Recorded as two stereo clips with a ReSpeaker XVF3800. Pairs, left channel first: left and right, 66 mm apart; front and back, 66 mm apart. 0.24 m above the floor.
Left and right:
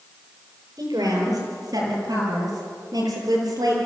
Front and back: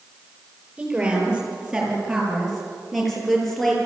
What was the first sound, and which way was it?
A woman speaking, 105° right.